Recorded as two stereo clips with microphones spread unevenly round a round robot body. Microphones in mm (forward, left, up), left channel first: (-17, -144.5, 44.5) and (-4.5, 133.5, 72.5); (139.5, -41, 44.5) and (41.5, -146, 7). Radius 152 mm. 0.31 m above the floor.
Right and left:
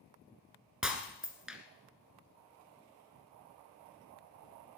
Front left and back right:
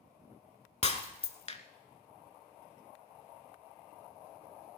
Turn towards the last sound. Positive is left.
turn(degrees=0)